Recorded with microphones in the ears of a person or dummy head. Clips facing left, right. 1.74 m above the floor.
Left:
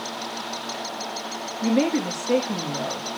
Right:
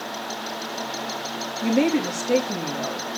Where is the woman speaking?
5° left (ahead or behind), 3 m.